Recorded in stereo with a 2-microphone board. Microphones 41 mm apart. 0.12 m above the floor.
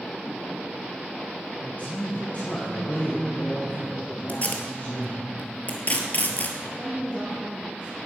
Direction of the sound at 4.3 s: 40° left (ahead or behind).